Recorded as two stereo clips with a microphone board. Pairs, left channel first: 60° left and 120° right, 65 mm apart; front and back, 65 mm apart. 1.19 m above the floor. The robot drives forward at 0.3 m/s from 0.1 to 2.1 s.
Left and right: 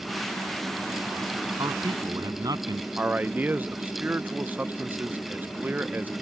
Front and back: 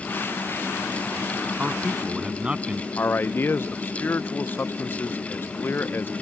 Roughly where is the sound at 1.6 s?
Right.